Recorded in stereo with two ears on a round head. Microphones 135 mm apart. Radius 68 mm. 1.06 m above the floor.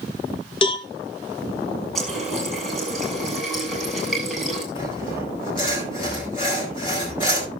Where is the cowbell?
35° left (ahead or behind), 1.2 m.